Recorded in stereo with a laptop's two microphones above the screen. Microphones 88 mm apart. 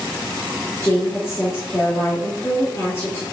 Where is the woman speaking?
30° left (ahead or behind), 2 m.